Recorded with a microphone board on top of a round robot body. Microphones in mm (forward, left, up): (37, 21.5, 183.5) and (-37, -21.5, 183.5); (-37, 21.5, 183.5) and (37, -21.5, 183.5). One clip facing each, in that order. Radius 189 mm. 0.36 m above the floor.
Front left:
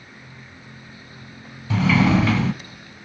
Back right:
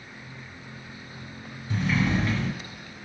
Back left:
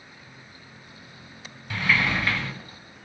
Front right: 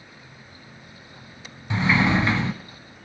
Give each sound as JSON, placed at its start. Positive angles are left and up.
{"t": 1.7, "sound": "a sliding door", "azimuth_deg": 40, "distance_m": 1.0}